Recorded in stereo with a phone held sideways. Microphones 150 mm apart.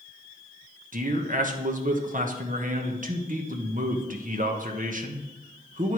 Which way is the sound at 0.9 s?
60° right (ahead or behind).